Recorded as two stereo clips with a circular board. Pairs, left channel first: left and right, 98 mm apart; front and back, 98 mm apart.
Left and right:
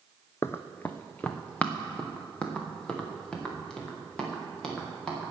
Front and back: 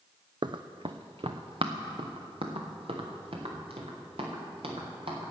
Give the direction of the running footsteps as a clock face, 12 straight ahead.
7 o'clock.